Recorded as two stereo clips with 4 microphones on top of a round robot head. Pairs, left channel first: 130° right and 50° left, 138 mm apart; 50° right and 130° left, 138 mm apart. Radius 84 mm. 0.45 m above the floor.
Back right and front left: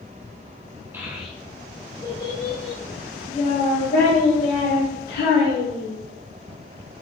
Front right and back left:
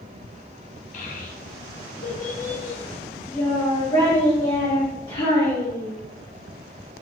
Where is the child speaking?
25° right, 0.9 m; by 5.9 s 110° right, 2.5 m.